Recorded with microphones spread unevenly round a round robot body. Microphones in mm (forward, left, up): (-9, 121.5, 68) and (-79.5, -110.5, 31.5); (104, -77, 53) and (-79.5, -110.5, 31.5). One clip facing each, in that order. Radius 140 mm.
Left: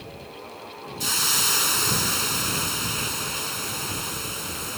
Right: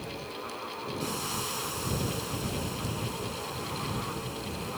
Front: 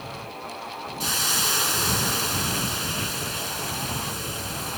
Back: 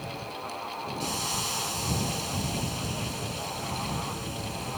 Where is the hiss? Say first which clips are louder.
Left 1 dB, front 4 dB; 55° left.